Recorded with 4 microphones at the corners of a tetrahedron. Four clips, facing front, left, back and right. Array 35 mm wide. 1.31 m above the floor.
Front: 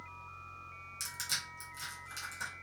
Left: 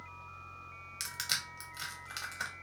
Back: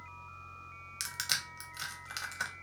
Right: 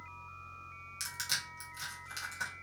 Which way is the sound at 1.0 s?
155° left.